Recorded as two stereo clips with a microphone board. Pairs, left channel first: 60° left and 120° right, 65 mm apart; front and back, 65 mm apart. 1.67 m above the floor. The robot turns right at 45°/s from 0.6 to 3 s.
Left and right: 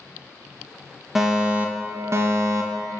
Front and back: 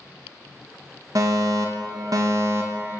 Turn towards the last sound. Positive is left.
turn(degrees=-120)